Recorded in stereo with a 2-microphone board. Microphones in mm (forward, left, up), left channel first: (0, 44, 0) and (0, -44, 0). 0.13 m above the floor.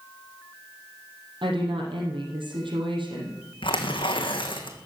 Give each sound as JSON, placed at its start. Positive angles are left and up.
{"t": 1.4, "sound": "a woman speaking", "side_deg": -75, "distance_m": 4.0}
{"t": 3.6, "sound": "tearing paper", "side_deg": 80, "distance_m": 2.0}